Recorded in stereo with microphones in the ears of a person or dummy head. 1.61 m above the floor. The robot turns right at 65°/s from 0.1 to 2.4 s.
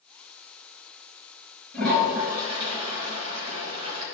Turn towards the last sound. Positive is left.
turn(degrees=-155)